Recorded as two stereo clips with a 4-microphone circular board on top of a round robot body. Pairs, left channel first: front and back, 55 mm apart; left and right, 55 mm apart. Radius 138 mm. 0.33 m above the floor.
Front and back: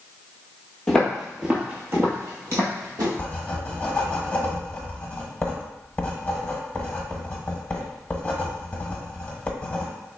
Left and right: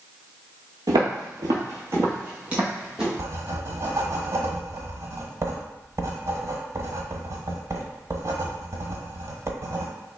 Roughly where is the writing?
Right.